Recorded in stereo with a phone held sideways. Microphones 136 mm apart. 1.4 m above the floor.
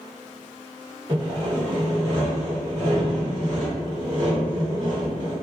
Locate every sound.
1.1 s sawing: 35° right (ahead or behind), 1.3 m